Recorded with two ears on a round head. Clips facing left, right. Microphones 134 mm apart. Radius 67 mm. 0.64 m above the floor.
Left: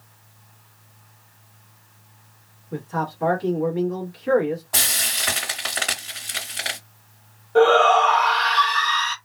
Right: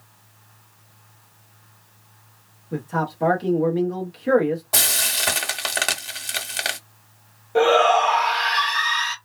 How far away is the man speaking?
About 0.8 m.